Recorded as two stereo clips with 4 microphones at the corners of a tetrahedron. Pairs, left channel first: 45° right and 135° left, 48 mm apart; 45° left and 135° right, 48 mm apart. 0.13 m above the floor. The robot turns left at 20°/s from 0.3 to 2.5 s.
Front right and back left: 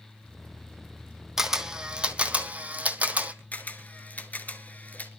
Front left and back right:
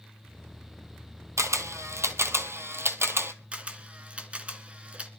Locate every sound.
1.4 s a camera shutter: 145° right, 0.9 m; by 3.3 s 165° right, 0.9 m
3.5 s a camera shutter: 80° right, 1.4 m